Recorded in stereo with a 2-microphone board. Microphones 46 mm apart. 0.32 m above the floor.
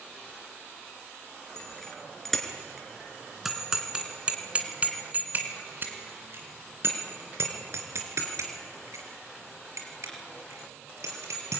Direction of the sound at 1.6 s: 10° left (ahead or behind).